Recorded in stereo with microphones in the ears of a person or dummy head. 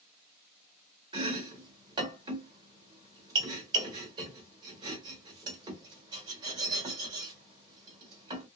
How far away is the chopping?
About 1.4 m.